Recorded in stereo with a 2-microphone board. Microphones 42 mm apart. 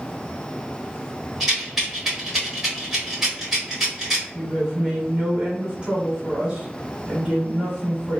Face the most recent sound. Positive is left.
turn(degrees=-25)  # may be behind; listen again after turning